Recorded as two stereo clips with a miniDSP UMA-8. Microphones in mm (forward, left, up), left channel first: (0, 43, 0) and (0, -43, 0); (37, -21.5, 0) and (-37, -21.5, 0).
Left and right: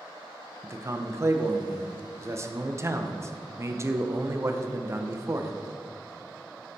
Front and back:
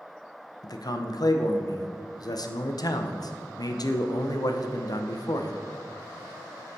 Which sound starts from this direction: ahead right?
A man speaking, at 0.6 s.